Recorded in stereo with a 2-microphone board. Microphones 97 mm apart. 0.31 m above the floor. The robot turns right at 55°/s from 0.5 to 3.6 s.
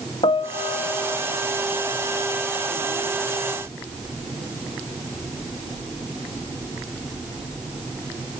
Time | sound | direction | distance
0.2 | a piano | 110° left | 0.7 m